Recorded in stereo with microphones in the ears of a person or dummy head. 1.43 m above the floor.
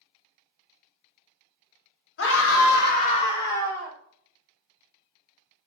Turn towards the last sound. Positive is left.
turn(degrees=5)  # may be behind; listen again after turning